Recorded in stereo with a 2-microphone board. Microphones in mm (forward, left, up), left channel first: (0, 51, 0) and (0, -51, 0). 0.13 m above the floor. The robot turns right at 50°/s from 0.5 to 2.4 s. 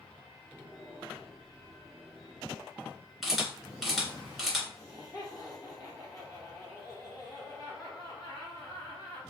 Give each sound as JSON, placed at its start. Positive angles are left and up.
{"t": 3.2, "sound": "a camera shutter", "side_deg": 0, "distance_m": 1.8}
{"t": 4.7, "sound": "laughter", "side_deg": 40, "distance_m": 1.8}